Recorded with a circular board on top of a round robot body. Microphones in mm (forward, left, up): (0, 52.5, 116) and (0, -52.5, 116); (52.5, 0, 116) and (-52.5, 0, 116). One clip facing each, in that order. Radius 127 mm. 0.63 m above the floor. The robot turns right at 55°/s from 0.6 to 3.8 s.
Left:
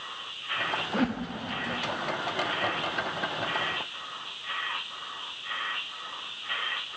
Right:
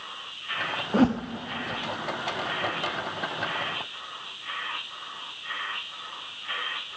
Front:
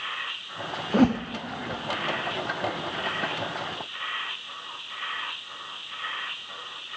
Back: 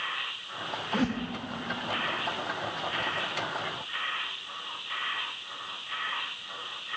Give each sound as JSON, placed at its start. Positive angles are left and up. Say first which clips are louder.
{"t": 0.9, "sound": "a whoosh", "louder": "right 7 dB, front 9 dB", "azimuth_deg": -40, "distance_m": 0.7}